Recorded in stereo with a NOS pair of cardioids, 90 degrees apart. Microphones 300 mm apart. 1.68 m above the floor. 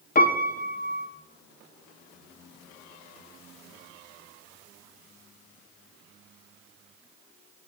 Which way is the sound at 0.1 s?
30° left.